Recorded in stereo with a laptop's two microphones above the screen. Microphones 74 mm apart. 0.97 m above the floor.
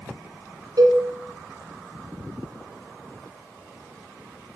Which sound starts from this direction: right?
A cowbell, at 0.8 s.